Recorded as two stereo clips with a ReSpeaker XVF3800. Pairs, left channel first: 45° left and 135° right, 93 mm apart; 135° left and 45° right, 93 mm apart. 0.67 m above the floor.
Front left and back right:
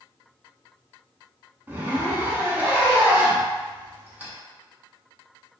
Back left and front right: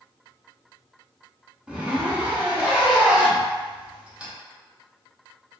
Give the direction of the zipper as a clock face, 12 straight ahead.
4 o'clock.